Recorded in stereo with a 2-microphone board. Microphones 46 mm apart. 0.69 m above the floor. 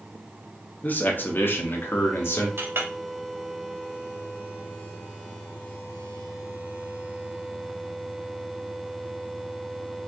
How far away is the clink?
About 1.0 m.